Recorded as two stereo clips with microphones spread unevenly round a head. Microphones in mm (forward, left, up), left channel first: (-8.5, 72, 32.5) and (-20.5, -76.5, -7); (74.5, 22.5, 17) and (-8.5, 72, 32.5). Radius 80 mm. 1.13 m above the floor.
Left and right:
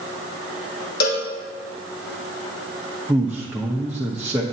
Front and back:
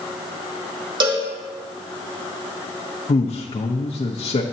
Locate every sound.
1.0 s a cowbell: 110° left, 1.8 m
3.1 s a man speaking: 10° right, 0.8 m